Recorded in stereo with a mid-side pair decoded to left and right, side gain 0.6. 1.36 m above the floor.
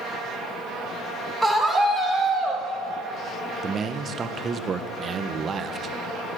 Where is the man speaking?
30° right, 0.9 m.